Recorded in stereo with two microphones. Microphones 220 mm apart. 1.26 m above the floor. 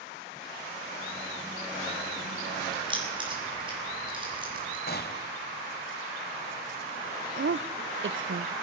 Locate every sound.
2.7 s keys jangling: 20° right (ahead or behind), 7 m
4.9 s a gunshot: 45° left (ahead or behind), 1.5 m
7.4 s a woman speaking: 60° right (ahead or behind), 0.7 m